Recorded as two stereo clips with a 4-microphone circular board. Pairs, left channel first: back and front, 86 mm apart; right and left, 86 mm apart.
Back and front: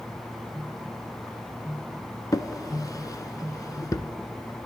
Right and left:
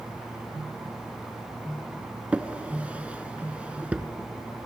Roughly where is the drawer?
Behind.